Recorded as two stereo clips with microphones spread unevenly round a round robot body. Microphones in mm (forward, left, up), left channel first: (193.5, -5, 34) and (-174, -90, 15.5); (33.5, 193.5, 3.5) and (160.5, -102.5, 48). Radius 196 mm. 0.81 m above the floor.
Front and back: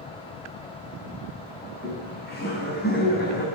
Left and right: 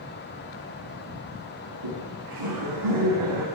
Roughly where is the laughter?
Ahead right.